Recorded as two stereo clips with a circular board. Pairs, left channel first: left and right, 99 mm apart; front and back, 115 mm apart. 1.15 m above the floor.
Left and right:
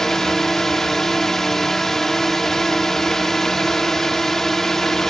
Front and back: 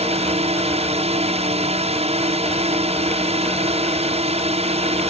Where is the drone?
175° left.